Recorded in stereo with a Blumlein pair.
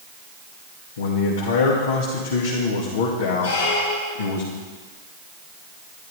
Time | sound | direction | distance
1.0 | a man speaking | 60° left | 2.5 m
3.4 | a squeak | 60° left | 2.5 m